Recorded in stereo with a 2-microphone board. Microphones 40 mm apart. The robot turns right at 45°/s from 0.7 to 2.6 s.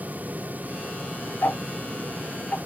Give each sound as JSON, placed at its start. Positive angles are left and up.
{"t": 1.4, "sound": "ticking", "side_deg": 60, "distance_m": 0.6}